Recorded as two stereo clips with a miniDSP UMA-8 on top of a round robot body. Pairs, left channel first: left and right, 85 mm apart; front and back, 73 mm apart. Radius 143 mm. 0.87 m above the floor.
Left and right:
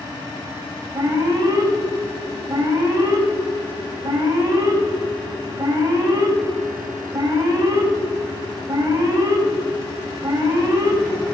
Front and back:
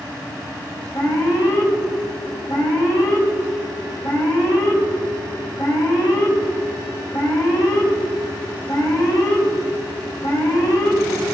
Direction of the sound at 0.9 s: 35° right.